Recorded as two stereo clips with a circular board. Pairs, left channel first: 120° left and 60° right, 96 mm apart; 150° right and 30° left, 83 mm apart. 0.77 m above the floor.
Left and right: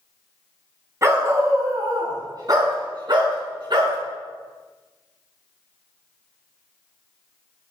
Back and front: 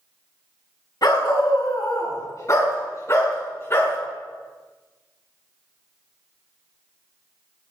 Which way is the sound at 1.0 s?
115° right.